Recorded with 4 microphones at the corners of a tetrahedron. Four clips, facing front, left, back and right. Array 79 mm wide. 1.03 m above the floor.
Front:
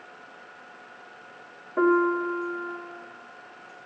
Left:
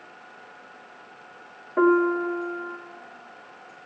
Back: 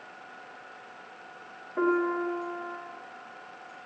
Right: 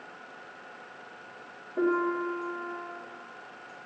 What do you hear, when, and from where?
1.8 s a piano: 65° left, 1.4 m